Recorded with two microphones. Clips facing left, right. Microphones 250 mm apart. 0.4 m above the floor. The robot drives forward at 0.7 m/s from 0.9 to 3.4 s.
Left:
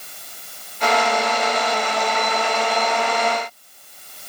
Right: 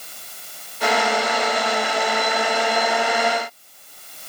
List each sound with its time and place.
Only background noise.